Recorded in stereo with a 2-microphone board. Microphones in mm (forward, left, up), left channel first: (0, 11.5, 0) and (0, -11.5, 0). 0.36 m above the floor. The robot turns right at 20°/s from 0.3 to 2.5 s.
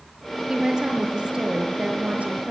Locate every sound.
0.5 s a woman speaking: 150° right, 6 m; by 2.5 s 110° right, 6 m